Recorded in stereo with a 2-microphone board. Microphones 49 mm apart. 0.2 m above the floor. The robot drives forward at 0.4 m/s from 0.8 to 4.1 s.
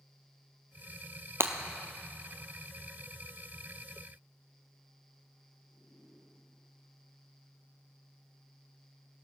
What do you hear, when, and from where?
1.4 s breaking glass: 55° right (ahead or behind), 0.7 m; by 1.5 s 60° right (ahead or behind), 0.7 m